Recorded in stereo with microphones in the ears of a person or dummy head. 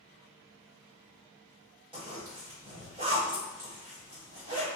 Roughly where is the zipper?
Right.